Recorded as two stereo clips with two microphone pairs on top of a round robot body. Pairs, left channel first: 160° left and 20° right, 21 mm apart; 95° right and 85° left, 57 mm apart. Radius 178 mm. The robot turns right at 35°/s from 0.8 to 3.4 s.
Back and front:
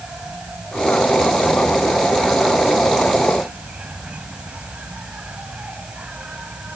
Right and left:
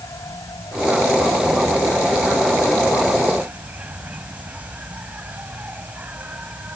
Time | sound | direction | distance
0.0 | an insect | 65° right | ?